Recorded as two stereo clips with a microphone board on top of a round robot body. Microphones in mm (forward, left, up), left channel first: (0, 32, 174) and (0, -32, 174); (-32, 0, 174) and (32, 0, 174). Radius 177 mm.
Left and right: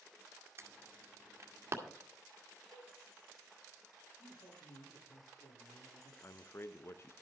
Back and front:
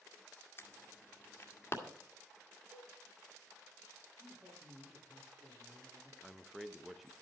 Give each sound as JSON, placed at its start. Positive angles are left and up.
{"t": 0.6, "sound": "an alarm", "azimuth_deg": -135, "distance_m": 1.9}
{"t": 2.7, "sound": "a cowbell", "azimuth_deg": -75, "distance_m": 1.6}
{"t": 4.2, "sound": "a man speaking", "azimuth_deg": 70, "distance_m": 7.5}
{"t": 6.2, "sound": "a man speaking", "azimuth_deg": 85, "distance_m": 0.9}